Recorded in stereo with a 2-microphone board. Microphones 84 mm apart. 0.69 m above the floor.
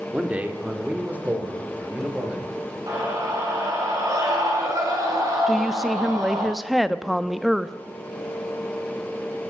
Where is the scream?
40° right (ahead or behind), 6 m.